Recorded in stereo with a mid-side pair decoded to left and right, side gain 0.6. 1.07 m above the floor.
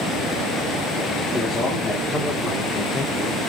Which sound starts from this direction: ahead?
A man speaking, at 1.3 s.